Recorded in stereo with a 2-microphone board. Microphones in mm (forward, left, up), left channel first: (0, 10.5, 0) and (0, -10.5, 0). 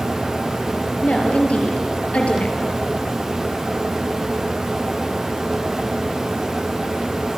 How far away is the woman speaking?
About 6 m.